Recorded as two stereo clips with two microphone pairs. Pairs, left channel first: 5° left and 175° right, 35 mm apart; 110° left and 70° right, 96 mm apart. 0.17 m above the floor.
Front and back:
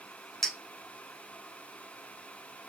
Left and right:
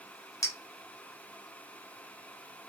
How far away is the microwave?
No microwave in this recording.